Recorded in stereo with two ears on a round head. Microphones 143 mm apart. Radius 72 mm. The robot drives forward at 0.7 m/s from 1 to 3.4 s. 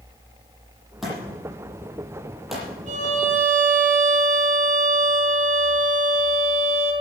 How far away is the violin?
About 3.5 m.